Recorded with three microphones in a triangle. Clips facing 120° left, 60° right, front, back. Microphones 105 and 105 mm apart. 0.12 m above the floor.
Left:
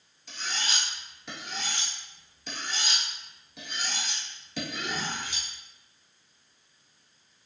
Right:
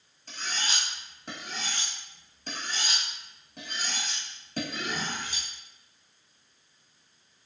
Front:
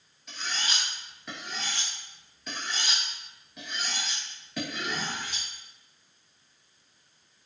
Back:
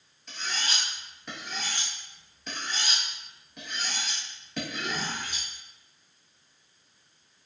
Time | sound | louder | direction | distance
0.3 | cutlery clinking | even, even | 90° right | 1.3 m